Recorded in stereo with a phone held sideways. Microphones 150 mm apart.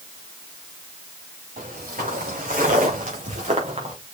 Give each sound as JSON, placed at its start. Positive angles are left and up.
{"t": 1.6, "sound": "footsteps", "side_deg": -75, "distance_m": 5.5}